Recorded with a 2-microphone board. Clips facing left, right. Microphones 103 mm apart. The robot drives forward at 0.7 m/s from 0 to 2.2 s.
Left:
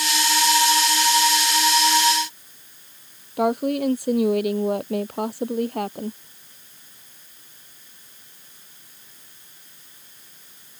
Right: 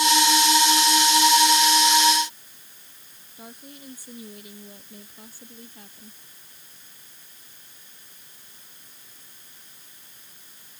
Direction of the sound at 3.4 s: 75° left (ahead or behind).